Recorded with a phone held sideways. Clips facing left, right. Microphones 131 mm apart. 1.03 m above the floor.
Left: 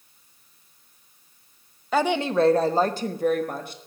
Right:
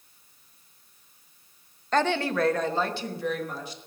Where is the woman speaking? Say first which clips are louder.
Left 3 dB; 5° left (ahead or behind), 0.7 m; by 3.8 s 55° left (ahead or behind), 1.5 m.